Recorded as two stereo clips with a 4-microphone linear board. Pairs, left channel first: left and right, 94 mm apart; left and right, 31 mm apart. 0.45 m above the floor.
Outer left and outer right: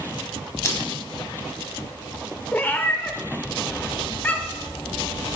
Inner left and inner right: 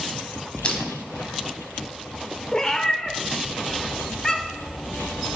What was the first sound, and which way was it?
Crushing, 35° left (ahead or behind).